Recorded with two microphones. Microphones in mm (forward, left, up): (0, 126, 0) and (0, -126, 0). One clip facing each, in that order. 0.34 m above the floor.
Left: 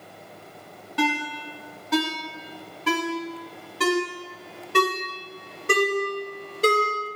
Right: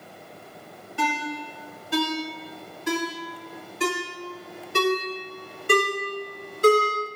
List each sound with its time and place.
1.0 s a ringtone: 70° left (ahead or behind), 0.9 m